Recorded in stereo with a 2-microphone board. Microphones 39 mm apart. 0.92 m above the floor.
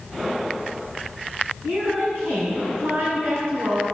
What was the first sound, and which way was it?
A woman speaking, 80° right.